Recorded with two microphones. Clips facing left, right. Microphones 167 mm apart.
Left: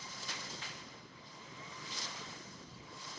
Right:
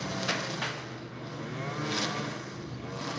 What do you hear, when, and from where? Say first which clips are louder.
0.0 s a lawn mower: right 16 dB; 80° right